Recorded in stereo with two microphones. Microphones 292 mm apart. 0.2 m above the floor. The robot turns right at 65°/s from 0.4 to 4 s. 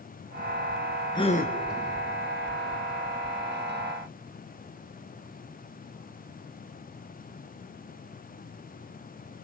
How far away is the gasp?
About 3 m.